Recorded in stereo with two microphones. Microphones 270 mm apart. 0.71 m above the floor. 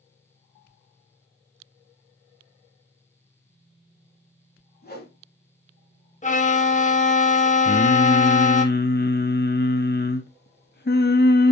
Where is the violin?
30° left (ahead or behind), 0.5 m.